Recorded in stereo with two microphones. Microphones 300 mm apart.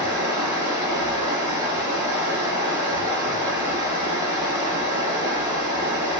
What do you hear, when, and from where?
0.0 s running water: 75° right (ahead or behind), 2.5 m